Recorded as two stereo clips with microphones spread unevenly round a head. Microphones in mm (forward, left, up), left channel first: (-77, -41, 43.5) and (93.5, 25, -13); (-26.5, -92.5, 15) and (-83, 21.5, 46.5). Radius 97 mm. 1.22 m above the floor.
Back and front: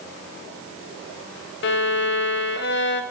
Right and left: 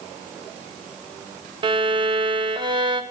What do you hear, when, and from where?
1.6 s a violin: 175° left, 0.6 m